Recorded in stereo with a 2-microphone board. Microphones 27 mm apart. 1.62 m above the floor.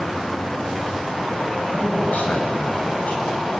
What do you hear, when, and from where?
1.7 s a man speaking: 70° left (ahead or behind), 9.5 m; by 3.2 s 65° left (ahead or behind), 10 m